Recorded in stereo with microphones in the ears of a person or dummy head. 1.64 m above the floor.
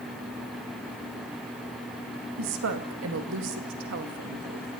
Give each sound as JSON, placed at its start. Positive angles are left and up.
{"t": 2.4, "sound": "a woman speaking", "side_deg": -70, "distance_m": 2.5}